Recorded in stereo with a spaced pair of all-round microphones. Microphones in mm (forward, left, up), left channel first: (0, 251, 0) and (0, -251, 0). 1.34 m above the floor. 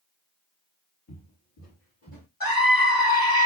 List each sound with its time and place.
1.1 s footsteps: 35° left (ahead or behind), 2 m; by 2.3 s 25° left (ahead or behind), 3 m
2.4 s a scream: 40° left (ahead or behind), 2 m